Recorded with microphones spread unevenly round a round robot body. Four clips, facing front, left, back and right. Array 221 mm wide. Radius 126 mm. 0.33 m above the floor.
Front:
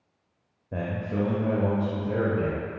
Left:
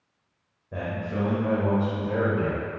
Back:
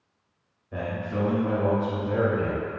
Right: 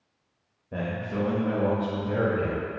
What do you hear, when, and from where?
0.7 s a man speaking: 15° right, 1.0 m; by 2.7 s 5° left, 2.0 m